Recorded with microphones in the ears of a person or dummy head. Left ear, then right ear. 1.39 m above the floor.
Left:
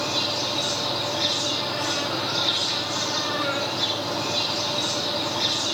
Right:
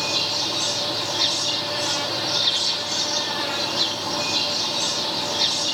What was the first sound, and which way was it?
An insect, 45° right (ahead or behind).